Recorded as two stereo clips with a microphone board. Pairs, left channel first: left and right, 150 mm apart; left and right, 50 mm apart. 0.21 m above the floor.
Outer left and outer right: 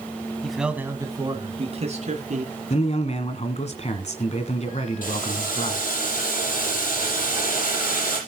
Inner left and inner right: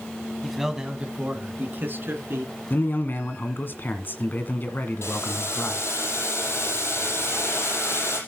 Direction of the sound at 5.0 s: 60° left (ahead or behind).